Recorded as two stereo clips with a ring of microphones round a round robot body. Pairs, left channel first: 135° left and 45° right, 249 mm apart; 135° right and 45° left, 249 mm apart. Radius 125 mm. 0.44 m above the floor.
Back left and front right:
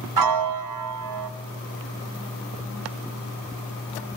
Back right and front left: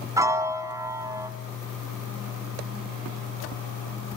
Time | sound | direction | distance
0.2 | a piano | 35° right | 1.4 m